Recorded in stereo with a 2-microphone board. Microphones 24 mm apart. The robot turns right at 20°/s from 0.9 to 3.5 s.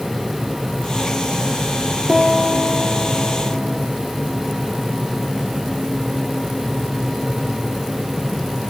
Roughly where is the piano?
Centre.